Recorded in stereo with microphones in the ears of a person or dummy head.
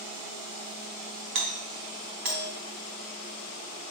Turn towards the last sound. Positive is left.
turn(degrees=-45)  # may be behind; listen again after turning